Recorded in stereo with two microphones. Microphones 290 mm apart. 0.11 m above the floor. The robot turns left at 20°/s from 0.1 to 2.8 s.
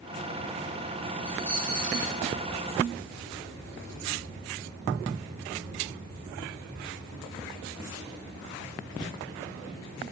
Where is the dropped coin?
65° right (ahead or behind), 5 m; by 2.2 s 50° right (ahead or behind), 5 m.